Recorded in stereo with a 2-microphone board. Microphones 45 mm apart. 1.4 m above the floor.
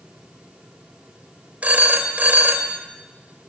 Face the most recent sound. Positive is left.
turn(degrees=-30)  # may be behind; listen again after turning